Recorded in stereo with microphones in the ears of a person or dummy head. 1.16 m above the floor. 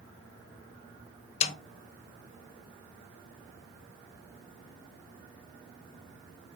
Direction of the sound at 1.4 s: 35° left (ahead or behind).